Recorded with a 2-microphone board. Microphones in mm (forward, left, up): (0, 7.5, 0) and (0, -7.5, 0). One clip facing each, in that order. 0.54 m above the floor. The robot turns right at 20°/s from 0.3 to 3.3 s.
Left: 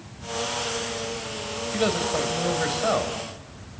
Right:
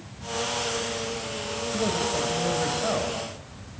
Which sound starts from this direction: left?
A man speaking, at 1.7 s.